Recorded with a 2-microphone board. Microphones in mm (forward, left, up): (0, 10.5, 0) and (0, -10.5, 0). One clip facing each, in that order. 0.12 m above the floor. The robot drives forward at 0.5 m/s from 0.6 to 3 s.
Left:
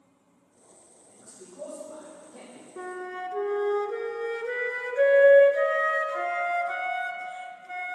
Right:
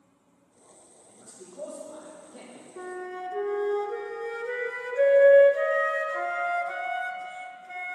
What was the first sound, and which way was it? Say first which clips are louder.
A man speaking: right 1 dB; 30° right (ahead or behind).